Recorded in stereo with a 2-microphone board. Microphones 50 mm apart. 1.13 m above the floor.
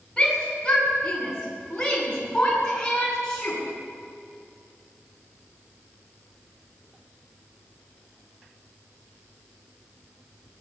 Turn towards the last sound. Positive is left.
turn(degrees=15)  # may be behind; listen again after turning